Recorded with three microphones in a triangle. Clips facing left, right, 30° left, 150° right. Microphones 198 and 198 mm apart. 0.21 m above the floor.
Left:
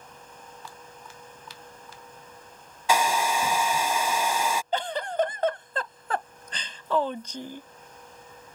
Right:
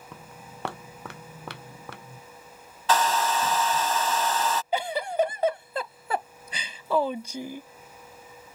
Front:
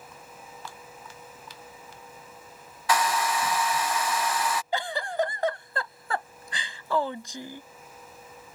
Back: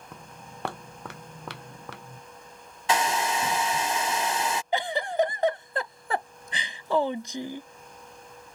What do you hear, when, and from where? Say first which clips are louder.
0.1 s footsteps: right 2 dB, back 1 dB; 115° right; by 2.2 s 125° right
2.9 s a hair dryer: even, even; 160° left
4.7 s a giggle: right 3 dB, back 5 dB; 155° right